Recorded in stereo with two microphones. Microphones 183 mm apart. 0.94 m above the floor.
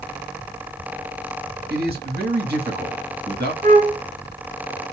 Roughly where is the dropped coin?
I don't hear a dropped coin.